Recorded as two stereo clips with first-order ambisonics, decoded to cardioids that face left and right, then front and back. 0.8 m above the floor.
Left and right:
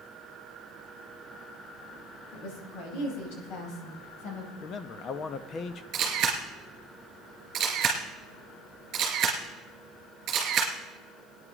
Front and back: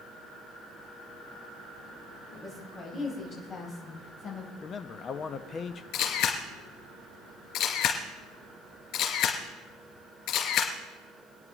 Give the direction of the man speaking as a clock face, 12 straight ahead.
10 o'clock.